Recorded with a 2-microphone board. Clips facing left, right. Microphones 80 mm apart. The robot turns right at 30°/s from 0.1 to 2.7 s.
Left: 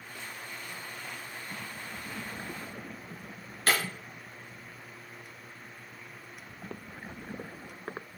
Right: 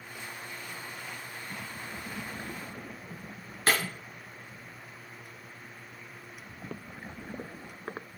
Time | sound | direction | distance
3.7 | breaking glass | 25° right (ahead or behind) | 3.5 m